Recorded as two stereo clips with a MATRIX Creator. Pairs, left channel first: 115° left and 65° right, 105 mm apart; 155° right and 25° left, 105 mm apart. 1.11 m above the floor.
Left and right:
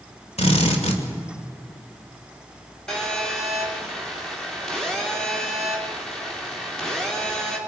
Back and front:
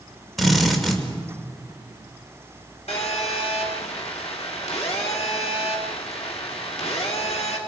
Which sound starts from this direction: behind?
A phone buzzing, at 2.9 s.